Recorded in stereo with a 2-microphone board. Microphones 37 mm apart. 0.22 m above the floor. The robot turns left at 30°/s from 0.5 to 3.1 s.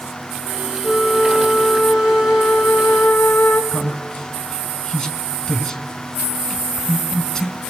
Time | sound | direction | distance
0.8 | a flute | 170° left | 1.4 m
3.7 | a man speaking | 20° left (ahead or behind) | 2 m